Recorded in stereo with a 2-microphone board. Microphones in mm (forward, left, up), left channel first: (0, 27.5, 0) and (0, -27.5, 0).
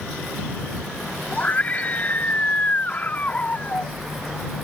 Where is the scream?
30° left (ahead or behind).